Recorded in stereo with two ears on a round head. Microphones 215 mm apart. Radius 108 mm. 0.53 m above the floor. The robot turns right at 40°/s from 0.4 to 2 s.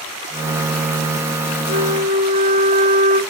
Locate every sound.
1.7 s a flute: 35° right (ahead or behind), 0.5 m; by 3.2 s 25° right (ahead or behind), 0.5 m